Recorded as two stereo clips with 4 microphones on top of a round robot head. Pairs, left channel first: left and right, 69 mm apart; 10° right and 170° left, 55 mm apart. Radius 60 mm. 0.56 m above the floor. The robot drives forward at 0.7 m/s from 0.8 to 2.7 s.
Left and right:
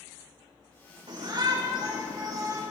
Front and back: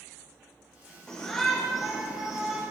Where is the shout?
90° right, 2.5 m; by 2.6 s 115° right, 3 m.